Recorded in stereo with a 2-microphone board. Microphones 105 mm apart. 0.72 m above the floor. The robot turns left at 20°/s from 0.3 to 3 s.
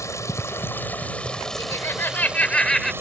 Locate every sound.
0.0 s running water: 30° left; by 3.0 s 25° right
1.6 s laughter: 30° left (ahead or behind); by 2.9 s 5° left (ahead or behind)